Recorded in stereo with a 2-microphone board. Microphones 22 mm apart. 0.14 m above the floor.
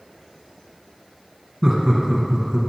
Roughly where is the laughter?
Centre.